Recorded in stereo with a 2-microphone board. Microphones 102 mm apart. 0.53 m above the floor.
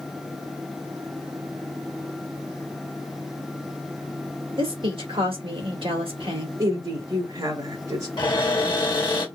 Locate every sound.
4.6 s a woman speaking: 60° right (ahead or behind), 1.9 m
6.6 s a woman speaking: 55° right (ahead or behind), 2 m
8.2 s a cupboard door: 50° left (ahead or behind), 1.7 m